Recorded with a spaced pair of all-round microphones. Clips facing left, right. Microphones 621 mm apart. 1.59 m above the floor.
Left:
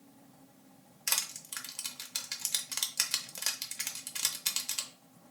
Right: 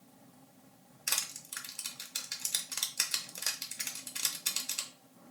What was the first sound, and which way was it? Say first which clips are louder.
Crushing: even; 30° left (ahead or behind).